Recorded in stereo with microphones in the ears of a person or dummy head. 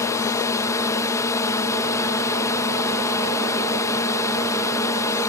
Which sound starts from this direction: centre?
A drone, at 0.0 s.